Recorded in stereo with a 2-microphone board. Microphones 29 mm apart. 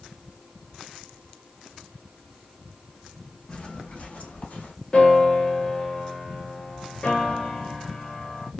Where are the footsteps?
30° left (ahead or behind), 0.9 m; by 4.7 s 65° left (ahead or behind), 1.6 m.